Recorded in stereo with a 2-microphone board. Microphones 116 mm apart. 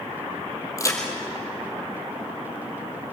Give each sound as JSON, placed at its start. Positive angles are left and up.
{"t": 0.8, "sound": "a crack", "side_deg": 25, "distance_m": 3.5}